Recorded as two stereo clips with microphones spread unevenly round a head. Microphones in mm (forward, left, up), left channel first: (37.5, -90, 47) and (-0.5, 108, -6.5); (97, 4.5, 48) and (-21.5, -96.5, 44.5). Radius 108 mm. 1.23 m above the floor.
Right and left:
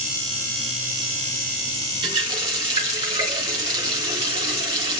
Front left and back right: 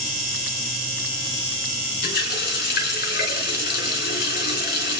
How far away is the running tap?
About 3.5 m.